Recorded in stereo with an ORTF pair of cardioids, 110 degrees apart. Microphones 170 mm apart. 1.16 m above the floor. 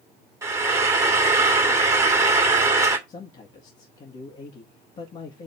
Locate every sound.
0.4 s frying: 20° right, 2.0 m
3.1 s a man speaking: 45° left, 1.9 m